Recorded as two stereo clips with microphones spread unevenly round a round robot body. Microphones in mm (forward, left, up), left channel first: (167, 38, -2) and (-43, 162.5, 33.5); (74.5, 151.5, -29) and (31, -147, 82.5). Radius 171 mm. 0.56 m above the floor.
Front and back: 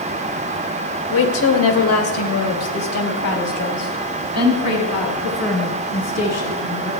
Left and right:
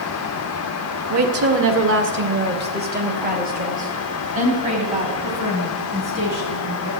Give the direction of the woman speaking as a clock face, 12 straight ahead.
2 o'clock.